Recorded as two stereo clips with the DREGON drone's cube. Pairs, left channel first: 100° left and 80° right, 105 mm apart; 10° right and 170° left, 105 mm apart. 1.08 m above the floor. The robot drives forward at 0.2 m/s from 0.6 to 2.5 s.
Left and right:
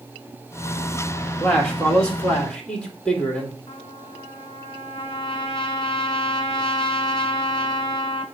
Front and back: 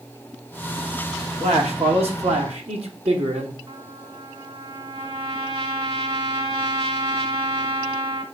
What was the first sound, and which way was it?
A man speaking, straight behind.